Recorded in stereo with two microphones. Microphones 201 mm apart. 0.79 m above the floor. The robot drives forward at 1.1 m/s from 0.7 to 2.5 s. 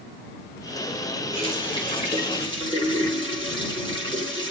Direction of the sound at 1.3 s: 25° left (ahead or behind).